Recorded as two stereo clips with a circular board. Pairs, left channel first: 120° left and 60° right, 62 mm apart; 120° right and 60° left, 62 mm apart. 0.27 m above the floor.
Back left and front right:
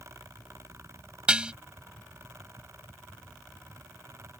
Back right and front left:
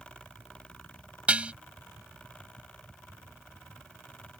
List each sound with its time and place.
1.3 s dishes clattering: 5° left